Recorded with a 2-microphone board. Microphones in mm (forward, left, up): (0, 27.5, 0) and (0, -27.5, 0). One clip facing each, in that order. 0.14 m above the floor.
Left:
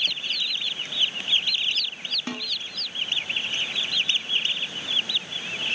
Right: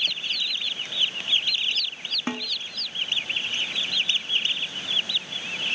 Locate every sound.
2.3 s a snare drum: 30° right (ahead or behind), 1.8 m